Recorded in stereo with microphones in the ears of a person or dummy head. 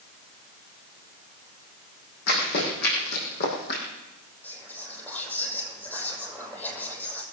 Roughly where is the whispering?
Centre.